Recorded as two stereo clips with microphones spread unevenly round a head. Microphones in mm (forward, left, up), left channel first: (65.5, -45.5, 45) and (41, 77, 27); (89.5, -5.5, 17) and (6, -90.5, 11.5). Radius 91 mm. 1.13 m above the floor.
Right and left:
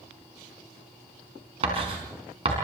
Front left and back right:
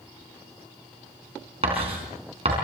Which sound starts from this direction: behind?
Writing, at 1.6 s.